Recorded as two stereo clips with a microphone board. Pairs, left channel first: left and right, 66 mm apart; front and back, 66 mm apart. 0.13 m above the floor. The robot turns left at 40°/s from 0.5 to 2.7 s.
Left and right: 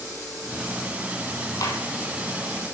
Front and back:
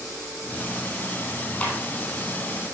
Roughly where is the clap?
Left.